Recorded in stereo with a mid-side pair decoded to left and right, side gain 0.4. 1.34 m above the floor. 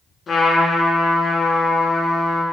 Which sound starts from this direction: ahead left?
A trumpet, at 0.3 s.